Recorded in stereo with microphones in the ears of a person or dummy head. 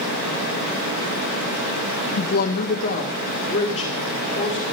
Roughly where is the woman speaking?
Left.